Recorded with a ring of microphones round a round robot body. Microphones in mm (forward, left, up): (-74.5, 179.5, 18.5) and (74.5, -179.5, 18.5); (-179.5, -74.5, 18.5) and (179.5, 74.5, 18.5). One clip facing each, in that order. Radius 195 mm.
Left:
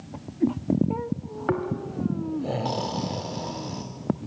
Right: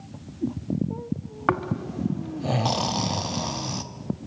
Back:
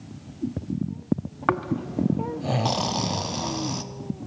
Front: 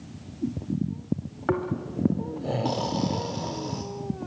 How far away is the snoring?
About 1.8 m.